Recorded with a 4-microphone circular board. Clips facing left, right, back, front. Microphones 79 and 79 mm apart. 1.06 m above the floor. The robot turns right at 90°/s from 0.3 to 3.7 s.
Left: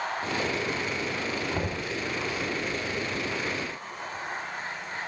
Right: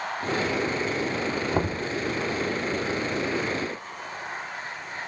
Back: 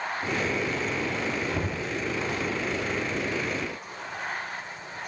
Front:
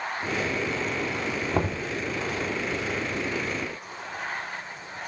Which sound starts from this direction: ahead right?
Knocking, at 1.5 s.